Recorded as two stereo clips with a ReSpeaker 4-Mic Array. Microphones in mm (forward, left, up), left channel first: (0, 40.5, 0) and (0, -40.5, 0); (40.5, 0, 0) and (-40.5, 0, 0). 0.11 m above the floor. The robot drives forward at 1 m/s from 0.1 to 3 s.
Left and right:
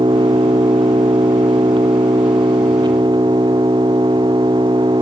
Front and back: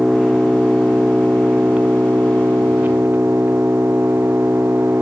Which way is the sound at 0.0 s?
100° right.